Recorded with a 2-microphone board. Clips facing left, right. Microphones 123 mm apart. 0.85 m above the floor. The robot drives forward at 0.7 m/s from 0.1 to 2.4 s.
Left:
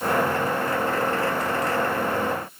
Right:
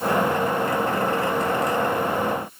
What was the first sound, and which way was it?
Only background noise.